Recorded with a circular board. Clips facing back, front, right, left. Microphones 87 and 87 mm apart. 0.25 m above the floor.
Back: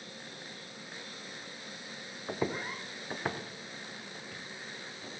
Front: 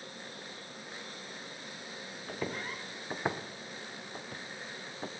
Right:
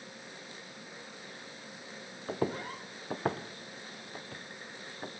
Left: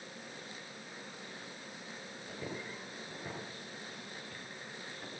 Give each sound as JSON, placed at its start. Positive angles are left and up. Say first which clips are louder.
{"t": 2.3, "sound": "footsteps", "louder": "back 4 dB, right 10 dB", "azimuth_deg": -115, "distance_m": 1.4}